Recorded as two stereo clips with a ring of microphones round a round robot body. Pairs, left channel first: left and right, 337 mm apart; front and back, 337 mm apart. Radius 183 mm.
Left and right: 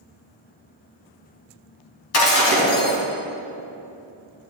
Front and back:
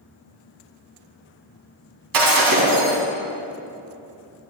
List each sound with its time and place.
2.1 s breaking glass: 140° left, 2.5 m